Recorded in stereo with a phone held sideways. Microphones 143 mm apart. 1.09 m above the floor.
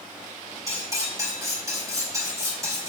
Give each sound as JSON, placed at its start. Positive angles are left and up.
{"t": 0.7, "sound": "cutlery clinking", "side_deg": -25, "distance_m": 3.0}